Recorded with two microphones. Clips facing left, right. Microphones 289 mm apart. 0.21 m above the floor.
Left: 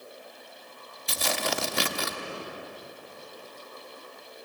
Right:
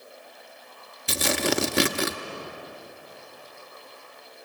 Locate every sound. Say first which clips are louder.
1.1 s tearing paper: right 6 dB; 80° right, 0.9 m